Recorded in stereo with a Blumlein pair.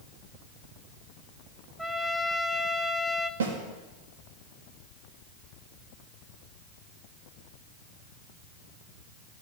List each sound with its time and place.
1.8 s a trumpet: straight ahead, 0.8 m
3.4 s a snare drum: 60° right, 2.5 m